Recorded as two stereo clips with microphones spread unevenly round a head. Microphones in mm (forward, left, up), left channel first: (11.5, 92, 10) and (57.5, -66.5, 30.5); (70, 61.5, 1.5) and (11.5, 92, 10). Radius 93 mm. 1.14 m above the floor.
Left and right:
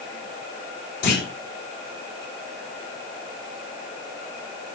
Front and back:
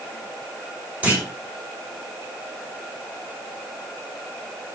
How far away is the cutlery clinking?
No cutlery clinking in this recording.